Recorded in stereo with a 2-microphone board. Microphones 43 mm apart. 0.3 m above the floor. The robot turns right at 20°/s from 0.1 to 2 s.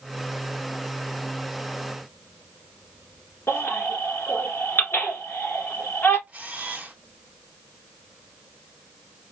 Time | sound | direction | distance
3.5 | a baby crying | 75° left (ahead or behind) | 1.5 m
6.3 | a camera shutter | 30° right (ahead or behind) | 1.2 m